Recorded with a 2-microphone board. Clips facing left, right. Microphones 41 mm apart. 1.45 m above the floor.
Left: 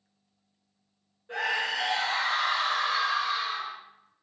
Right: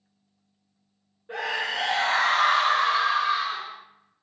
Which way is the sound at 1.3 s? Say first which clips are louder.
Even; 15° right (ahead or behind).